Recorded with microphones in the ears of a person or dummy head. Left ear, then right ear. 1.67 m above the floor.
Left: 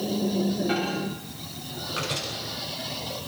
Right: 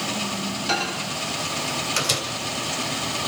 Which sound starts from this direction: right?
A microwave, at 0.7 s.